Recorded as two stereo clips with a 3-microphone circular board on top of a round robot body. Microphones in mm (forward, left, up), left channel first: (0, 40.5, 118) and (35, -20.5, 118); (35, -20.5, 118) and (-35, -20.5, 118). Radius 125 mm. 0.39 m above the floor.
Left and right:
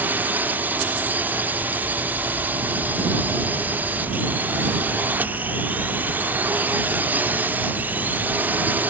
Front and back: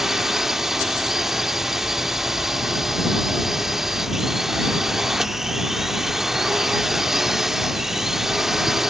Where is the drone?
100° right.